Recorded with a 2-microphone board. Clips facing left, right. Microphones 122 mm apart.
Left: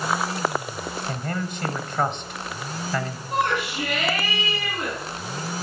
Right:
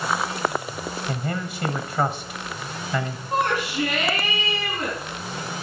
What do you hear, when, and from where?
1.1 s a man speaking: 5° right (ahead or behind), 1.1 m
3.3 s a shout: 40° right (ahead or behind), 3 m